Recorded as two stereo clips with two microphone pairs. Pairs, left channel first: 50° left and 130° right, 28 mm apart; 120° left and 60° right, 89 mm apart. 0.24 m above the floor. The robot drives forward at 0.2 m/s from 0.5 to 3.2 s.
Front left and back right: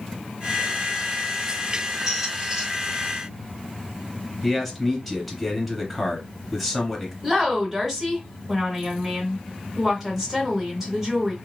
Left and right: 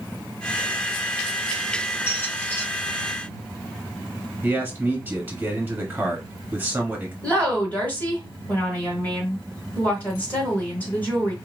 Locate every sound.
2.1 s a squeak: 165° left, 1.0 m; by 2.7 s 170° left, 1.1 m
4.4 s a man speaking: 40° right, 1.0 m
7.2 s a woman speaking: 160° left, 1.4 m